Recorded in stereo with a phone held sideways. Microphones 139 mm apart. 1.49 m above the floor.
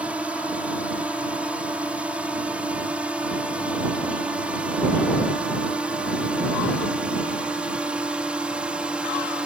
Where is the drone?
10° right (ahead or behind).